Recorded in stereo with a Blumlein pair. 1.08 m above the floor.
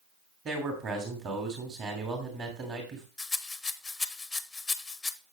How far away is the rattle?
About 0.8 m.